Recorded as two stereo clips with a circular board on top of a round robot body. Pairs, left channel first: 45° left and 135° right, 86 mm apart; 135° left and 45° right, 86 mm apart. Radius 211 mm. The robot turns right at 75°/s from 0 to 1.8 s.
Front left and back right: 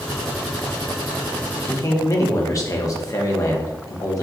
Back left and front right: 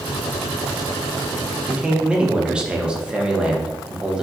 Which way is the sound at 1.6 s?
10° left.